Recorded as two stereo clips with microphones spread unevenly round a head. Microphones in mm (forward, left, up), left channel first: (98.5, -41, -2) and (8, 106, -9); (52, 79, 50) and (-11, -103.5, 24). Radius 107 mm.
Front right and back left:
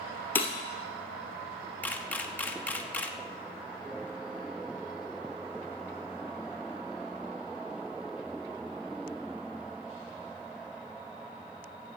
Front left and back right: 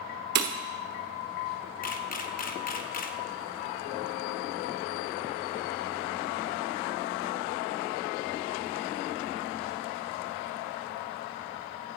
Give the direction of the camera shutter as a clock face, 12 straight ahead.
11 o'clock.